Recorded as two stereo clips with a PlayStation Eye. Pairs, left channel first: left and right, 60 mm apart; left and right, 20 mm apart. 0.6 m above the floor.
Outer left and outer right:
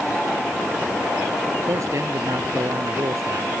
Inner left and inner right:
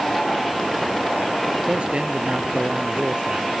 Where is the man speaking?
55° right (ahead or behind).